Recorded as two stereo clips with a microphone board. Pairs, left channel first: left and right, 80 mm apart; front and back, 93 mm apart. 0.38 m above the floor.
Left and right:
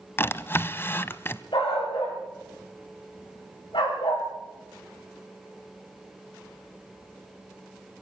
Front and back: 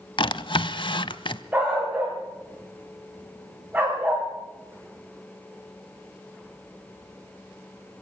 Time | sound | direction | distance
0.2 | a drawer | 30° left | 0.6 m
1.5 | a dog barking | 105° left | 9.5 m